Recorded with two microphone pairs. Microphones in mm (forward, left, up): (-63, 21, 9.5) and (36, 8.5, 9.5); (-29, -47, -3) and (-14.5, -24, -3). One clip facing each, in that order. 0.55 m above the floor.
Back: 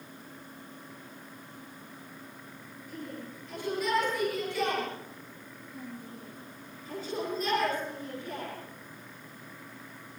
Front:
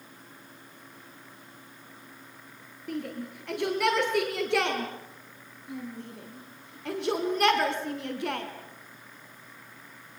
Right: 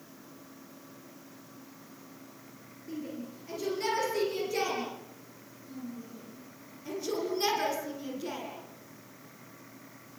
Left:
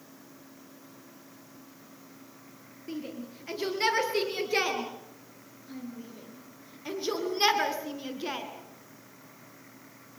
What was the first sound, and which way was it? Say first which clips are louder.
A shout: front 7 dB, left 1 dB; 10° left.